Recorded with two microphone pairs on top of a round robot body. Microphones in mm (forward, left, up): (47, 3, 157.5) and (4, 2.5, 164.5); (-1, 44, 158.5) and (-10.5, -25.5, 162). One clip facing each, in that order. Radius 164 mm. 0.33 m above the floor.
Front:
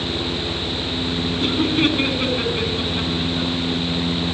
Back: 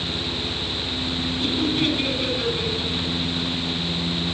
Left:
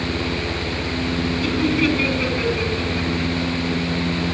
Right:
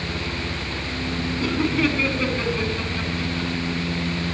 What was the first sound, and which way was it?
Laughter, 45° right.